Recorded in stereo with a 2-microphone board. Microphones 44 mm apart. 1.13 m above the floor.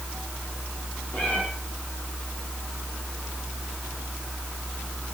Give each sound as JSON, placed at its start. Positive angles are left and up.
{"t": 1.1, "sound": "a cat meowing", "side_deg": 35, "distance_m": 7.5}